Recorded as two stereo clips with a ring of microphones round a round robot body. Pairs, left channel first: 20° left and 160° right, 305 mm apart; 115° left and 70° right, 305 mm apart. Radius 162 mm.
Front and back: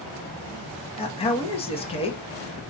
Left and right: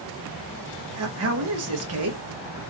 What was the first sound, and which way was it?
A man speaking, 45° right.